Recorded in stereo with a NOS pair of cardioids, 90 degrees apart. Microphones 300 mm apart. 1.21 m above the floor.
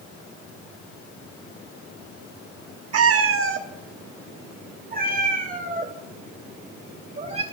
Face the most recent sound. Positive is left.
turn(degrees=-20)